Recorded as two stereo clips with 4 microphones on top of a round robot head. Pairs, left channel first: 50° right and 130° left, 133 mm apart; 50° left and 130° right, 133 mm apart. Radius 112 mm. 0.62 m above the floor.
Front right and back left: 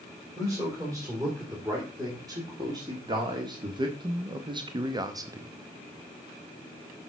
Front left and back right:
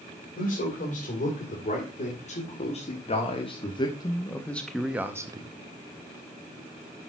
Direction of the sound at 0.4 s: 65° left.